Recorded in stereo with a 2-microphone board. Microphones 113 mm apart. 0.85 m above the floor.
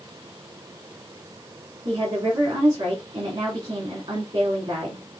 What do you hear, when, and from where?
1.9 s a woman speaking: 55° right (ahead or behind), 3 m